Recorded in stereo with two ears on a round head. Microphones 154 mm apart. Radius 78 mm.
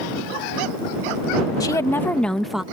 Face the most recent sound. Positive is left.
turn(degrees=-5)  # may be behind; listen again after turning